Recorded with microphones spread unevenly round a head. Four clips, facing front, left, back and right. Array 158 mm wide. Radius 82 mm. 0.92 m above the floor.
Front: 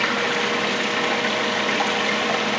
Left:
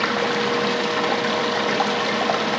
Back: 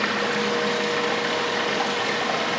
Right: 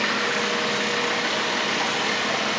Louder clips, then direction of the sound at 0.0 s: Left 4 dB, front 1 dB; 75° left.